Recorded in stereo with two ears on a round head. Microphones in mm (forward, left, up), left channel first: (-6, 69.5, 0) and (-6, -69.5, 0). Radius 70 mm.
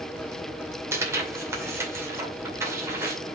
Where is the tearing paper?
20° right (ahead or behind), 2 m.